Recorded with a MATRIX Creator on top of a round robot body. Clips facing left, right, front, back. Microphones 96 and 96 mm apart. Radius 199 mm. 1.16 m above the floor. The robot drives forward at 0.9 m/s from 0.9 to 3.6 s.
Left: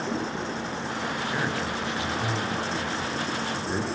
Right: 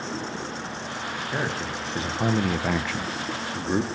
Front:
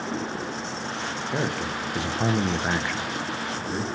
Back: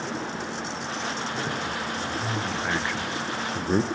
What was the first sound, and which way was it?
A man speaking, 20° right.